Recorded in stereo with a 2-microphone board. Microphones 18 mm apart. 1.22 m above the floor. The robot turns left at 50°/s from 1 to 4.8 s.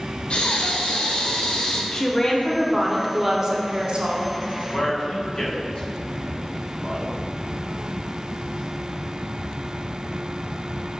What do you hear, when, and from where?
0.3 s breathing: 85° left, 0.6 m; by 1.8 s 45° left, 0.6 m
1.9 s a woman speaking: 50° left, 0.5 m; by 4.3 s 65° right, 0.5 m
4.7 s a man speaking: 45° left (ahead or behind), 0.9 m